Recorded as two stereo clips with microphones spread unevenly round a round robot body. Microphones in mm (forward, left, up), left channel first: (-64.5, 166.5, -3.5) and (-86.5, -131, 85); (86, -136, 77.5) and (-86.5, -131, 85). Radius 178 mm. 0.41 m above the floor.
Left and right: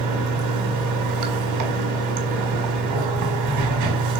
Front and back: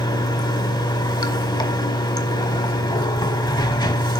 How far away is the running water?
About 1.8 m.